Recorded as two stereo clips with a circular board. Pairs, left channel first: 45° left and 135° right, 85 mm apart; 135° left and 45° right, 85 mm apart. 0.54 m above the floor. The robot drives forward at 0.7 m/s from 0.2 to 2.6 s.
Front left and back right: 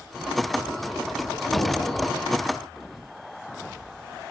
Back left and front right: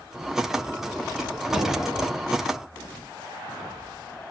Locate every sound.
1.5 s an explosion: 20° left, 7.5 m; by 2.2 s 25° left, 7 m